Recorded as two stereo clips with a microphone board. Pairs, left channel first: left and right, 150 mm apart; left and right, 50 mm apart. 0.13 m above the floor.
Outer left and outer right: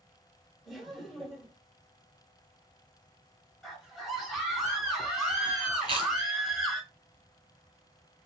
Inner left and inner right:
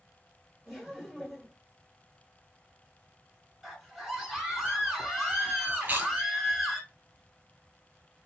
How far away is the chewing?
About 0.9 m.